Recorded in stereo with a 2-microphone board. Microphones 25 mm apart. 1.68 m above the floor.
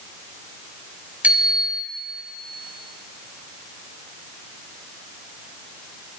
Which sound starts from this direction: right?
A bicycle bell, at 1.2 s.